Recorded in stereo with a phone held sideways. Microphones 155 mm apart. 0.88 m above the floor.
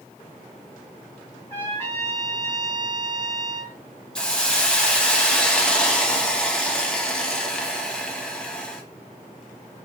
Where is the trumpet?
15° left (ahead or behind), 1.9 m.